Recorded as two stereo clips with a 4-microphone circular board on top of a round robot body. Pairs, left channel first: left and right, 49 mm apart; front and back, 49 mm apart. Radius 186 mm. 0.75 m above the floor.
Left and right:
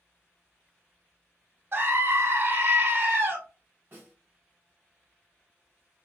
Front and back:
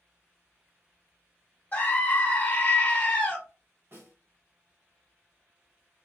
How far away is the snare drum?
About 1.9 m.